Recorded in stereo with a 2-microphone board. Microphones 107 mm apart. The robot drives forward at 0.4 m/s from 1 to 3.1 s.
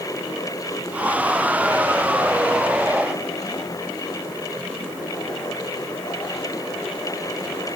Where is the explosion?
I don't hear an explosion.